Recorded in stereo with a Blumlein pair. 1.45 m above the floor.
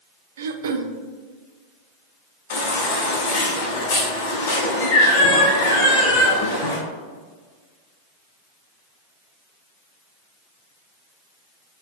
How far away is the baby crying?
About 2.5 m.